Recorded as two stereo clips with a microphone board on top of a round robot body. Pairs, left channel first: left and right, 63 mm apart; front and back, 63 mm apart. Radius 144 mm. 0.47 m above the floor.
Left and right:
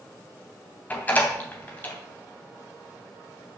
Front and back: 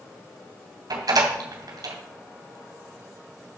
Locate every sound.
0.9 s a door slam: 155° left, 2.5 m